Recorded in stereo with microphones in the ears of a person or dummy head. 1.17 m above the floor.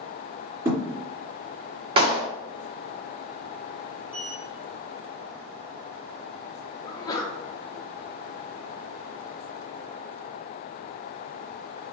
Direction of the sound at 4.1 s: 15° right (ahead or behind).